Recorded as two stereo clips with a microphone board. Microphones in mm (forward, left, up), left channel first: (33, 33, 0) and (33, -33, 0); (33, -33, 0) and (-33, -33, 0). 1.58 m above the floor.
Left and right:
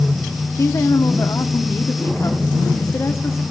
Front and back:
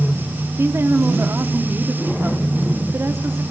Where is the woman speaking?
130° left, 1.1 m.